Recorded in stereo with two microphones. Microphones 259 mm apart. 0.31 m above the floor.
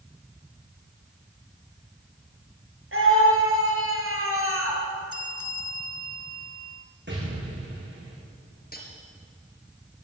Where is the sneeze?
I don't hear a sneeze.